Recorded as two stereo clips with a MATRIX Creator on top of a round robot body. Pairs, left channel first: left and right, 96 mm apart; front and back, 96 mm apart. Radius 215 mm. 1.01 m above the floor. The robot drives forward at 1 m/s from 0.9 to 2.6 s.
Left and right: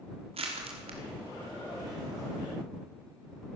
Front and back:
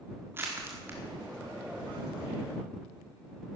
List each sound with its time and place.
0.3 s crushing: 110° right, 1.4 m; by 2.3 s 145° right, 2.5 m